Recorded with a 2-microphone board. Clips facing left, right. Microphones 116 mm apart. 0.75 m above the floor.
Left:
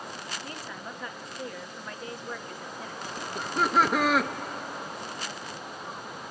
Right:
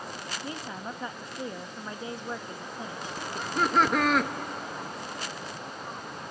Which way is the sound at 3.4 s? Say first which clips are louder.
Even; 5° left (ahead or behind).